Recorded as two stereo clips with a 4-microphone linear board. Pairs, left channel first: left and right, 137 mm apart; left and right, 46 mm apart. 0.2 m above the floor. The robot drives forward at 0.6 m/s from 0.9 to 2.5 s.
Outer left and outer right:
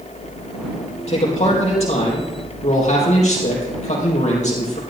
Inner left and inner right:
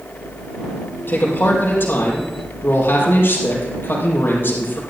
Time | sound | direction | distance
1.1 | a man speaking | 45° left (ahead or behind) | 5 m